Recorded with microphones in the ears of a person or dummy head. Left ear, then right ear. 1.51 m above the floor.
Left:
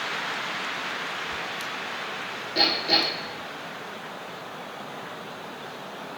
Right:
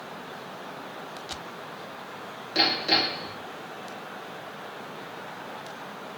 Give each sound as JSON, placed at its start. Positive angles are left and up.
{"t": 2.5, "sound": "hammering", "side_deg": -45, "distance_m": 3.0}